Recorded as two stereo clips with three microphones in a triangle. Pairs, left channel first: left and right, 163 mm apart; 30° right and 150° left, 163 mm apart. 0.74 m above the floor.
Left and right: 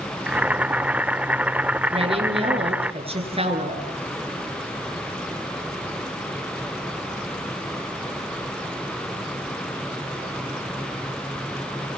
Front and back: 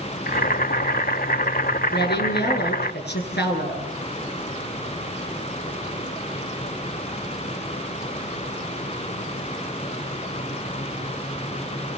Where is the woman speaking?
35° right, 9 m.